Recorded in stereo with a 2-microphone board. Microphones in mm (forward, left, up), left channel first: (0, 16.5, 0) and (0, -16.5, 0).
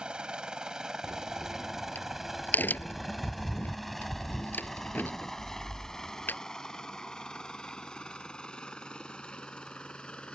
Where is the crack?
65° left (ahead or behind).